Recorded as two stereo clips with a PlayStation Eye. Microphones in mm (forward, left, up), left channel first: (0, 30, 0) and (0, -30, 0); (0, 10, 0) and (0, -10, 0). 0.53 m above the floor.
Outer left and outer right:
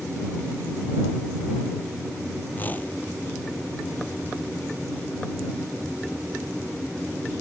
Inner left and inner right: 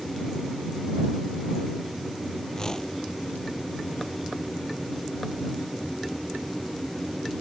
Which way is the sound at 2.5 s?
30° left (ahead or behind).